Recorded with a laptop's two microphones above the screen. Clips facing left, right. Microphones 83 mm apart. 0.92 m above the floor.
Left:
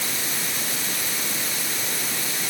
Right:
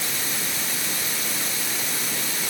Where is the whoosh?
No whoosh in this recording.